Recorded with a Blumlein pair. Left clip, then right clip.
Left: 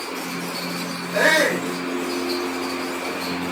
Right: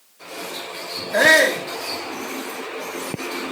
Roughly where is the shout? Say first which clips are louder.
Right 3 dB; ahead right.